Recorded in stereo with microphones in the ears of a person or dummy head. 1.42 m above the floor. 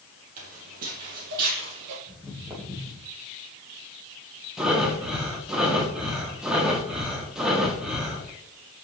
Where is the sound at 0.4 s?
40° right (ahead or behind), 3 m; by 2.0 s 60° right (ahead or behind), 3 m.